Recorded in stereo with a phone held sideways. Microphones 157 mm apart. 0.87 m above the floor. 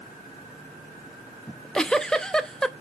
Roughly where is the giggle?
Centre.